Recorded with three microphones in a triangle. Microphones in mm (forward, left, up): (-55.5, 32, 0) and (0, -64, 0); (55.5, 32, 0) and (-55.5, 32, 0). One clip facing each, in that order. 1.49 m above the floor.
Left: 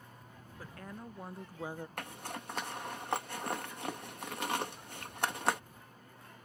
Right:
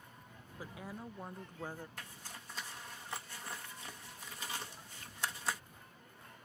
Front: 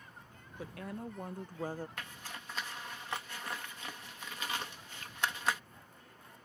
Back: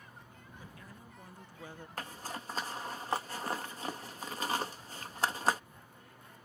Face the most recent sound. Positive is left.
turn(degrees=130)